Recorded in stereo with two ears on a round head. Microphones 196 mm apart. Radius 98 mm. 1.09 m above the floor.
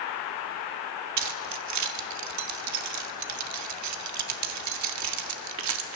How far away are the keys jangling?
About 1.9 m.